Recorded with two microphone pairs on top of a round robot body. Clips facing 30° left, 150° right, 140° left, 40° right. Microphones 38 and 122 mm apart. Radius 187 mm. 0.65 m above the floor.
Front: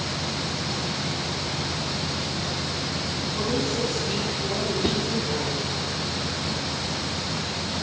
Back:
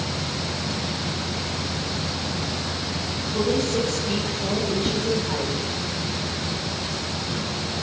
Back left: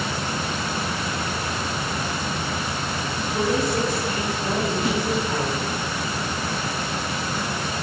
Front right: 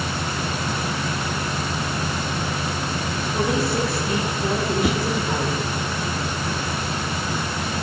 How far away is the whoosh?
About 1.2 m.